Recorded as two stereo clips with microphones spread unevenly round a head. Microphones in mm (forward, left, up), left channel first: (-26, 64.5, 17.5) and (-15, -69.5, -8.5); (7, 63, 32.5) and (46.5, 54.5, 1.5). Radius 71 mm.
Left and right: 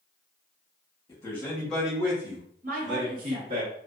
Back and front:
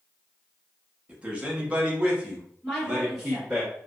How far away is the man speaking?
About 1.2 m.